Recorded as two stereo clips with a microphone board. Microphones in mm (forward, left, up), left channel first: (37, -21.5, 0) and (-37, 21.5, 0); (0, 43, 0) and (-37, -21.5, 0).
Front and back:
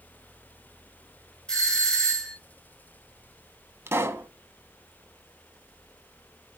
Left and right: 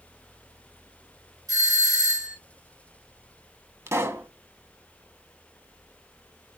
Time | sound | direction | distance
1.5 | a doorbell | 110° right | 4.5 m
3.9 | a pop | 160° right | 0.6 m